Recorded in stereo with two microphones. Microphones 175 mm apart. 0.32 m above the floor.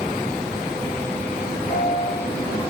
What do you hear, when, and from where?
1.7 s a piano: 15° left (ahead or behind), 3 m